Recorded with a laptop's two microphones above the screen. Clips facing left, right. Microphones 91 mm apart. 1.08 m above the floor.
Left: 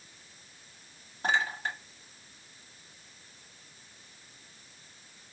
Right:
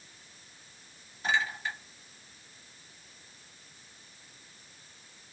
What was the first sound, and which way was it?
A clink, 55° left (ahead or behind).